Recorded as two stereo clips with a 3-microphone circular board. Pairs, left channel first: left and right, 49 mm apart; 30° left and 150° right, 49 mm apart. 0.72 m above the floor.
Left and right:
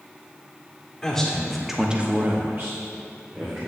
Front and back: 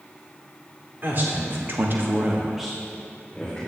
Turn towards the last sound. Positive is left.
turn(degrees=-45)